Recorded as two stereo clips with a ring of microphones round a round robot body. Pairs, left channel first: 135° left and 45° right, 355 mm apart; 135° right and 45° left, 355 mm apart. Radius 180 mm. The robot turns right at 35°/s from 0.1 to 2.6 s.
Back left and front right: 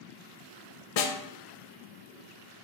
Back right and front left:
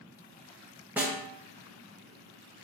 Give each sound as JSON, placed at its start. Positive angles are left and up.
{"t": 1.0, "sound": "a snare drum", "azimuth_deg": 130, "distance_m": 0.7}